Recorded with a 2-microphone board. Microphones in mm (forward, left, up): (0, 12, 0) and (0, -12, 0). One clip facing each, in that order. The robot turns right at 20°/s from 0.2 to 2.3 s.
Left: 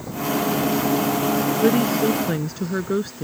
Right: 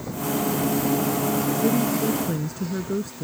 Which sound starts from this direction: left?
A woman speaking, at 1.6 s.